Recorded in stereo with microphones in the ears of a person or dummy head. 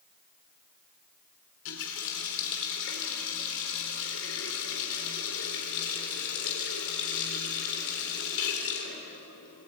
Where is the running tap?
70° left (ahead or behind), 3.5 m.